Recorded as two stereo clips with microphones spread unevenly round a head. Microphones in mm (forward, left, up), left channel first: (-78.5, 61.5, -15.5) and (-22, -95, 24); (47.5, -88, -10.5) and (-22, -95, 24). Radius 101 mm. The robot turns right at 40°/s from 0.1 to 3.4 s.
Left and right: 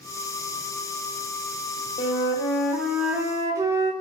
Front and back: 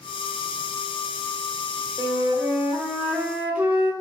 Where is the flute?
175° left, 0.7 m; by 3.9 s 130° right, 0.7 m.